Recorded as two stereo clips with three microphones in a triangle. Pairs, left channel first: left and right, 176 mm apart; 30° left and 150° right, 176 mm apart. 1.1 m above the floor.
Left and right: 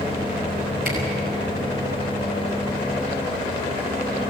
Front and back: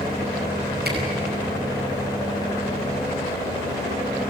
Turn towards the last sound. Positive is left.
turn(degrees=-125)